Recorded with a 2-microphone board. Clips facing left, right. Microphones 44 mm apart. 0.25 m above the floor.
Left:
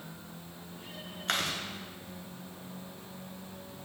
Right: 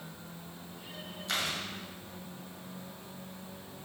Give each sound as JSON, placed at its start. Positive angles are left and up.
{"t": 1.3, "sound": "chewing", "side_deg": 70, "distance_m": 0.8}